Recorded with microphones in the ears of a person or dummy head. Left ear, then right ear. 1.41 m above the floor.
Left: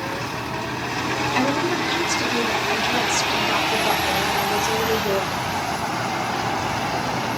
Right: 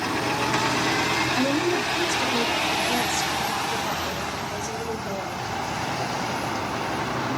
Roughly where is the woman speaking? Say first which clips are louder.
Left 2 dB; left.